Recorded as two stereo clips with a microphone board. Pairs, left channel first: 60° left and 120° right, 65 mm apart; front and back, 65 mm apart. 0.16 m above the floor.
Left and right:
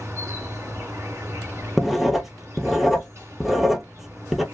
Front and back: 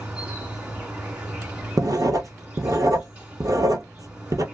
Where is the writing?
155° left, 0.6 m.